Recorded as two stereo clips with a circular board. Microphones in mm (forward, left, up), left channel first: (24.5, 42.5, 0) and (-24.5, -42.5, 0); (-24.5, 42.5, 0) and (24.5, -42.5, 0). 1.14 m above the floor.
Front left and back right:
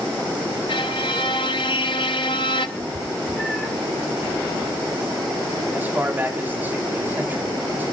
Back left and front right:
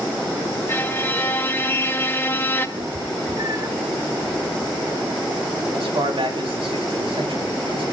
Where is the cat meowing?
25° right, 1.6 m.